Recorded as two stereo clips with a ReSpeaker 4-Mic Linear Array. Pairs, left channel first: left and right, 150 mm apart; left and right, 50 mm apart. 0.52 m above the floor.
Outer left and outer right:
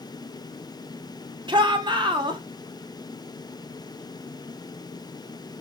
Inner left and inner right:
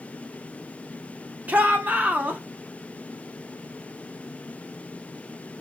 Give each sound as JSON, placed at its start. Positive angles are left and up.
{"t": 1.5, "sound": "a shout", "side_deg": -30, "distance_m": 1.4}